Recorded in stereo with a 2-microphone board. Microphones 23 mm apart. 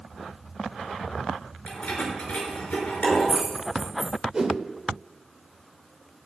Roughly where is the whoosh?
Right.